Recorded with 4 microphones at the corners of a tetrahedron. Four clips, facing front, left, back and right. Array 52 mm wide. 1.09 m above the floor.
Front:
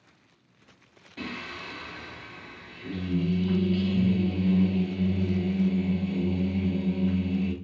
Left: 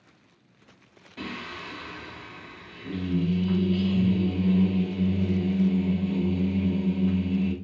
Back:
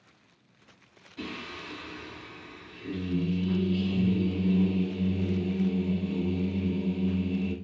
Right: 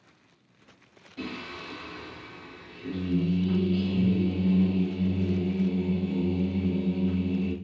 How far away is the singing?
About 2.5 m.